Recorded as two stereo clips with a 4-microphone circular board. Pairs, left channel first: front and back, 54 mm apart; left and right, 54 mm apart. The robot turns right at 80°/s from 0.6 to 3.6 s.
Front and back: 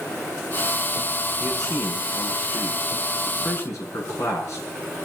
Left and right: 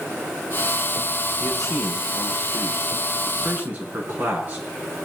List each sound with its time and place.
1.4 s a man speaking: 155° left, 7 m; by 4.7 s 30° right, 7 m